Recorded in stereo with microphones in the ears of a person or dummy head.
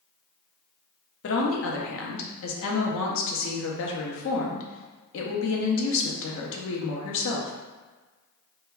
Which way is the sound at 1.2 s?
60° left (ahead or behind).